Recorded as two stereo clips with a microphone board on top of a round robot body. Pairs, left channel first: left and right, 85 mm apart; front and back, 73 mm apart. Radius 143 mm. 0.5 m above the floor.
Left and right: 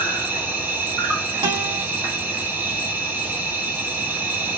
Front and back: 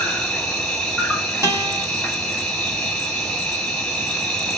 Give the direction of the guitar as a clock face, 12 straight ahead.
4 o'clock.